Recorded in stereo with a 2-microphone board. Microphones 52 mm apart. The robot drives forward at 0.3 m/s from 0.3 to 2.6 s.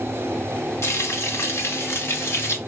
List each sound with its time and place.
0.8 s frying: 70° left (ahead or behind), 1.4 m; by 2.6 s 55° left (ahead or behind), 1.6 m